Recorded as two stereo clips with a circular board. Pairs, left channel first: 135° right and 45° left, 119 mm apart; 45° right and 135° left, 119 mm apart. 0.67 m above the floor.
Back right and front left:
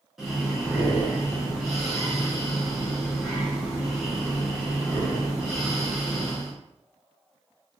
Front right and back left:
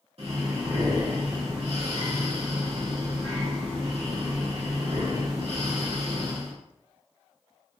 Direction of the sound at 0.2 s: 135° left.